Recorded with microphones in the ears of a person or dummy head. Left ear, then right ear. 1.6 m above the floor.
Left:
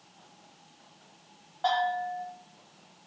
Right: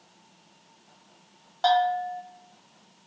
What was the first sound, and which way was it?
A bell, 80° right.